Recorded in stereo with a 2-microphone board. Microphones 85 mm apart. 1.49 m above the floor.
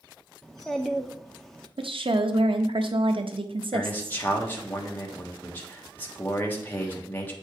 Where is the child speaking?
5° left (ahead or behind), 0.7 m.